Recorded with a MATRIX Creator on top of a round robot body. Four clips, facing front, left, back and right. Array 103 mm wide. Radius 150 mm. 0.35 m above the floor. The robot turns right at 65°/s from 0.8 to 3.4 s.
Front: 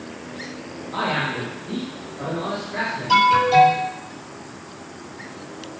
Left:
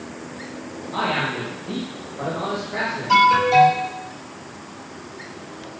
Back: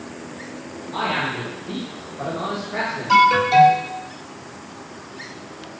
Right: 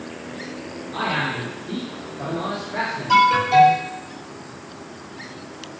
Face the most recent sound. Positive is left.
turn(degrees=-170)